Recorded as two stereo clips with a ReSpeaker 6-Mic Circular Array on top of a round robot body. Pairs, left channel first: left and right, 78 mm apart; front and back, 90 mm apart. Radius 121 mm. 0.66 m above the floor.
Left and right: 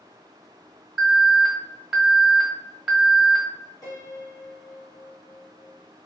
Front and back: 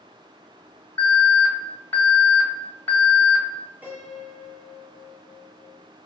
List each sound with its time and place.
1.0 s an alarm: 20° right, 1.4 m
3.8 s a piano: 115° left, 1.4 m